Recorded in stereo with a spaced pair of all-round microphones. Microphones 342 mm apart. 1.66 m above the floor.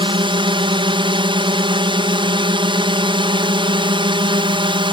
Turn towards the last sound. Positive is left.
turn(degrees=-15)  # may be behind; listen again after turning